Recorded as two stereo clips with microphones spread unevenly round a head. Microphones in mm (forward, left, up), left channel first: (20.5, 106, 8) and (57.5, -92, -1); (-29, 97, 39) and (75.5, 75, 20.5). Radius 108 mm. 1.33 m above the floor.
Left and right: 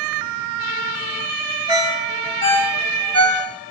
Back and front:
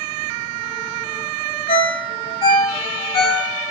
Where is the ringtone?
165° left, 1.2 m.